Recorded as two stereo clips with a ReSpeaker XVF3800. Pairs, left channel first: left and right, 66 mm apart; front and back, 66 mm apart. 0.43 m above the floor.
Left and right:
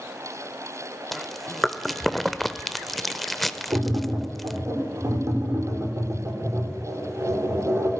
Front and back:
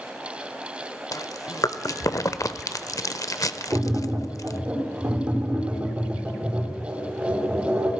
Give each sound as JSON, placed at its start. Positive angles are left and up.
{"t": 1.1, "sound": "chewing", "azimuth_deg": 0, "distance_m": 0.6}
{"t": 3.7, "sound": "tapping", "azimuth_deg": -130, "distance_m": 6.0}